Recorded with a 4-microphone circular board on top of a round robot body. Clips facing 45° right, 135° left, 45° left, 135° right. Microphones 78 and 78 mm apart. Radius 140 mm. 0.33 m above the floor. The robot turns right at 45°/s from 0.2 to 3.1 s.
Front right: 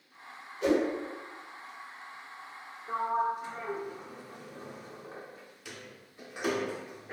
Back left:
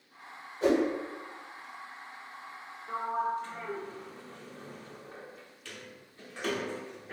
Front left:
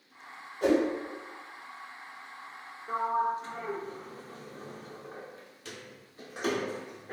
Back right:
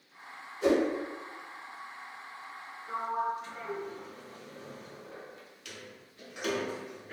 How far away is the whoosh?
About 1.6 m.